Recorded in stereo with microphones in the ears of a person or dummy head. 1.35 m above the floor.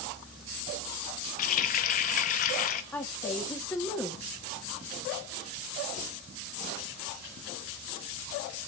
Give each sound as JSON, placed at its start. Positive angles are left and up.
{"t": 1.4, "sound": "a running tap", "side_deg": 40, "distance_m": 0.6}
{"t": 2.9, "sound": "a woman speaking", "side_deg": 15, "distance_m": 1.4}